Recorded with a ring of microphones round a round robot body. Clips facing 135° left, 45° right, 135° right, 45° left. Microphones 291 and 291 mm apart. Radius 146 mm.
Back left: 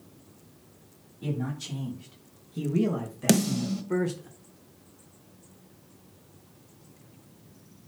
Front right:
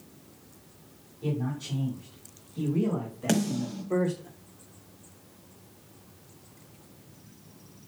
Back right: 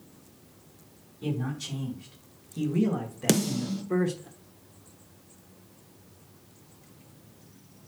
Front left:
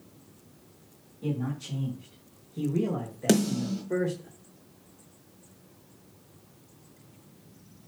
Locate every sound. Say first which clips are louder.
1.2 s a man speaking: front right 1 dB, even; 170° left, 3.5 m; by 4.3 s 160° left, 1.3 m
3.3 s a snare drum: back left 3 dB, front left 2 dB; 150° left, 1.3 m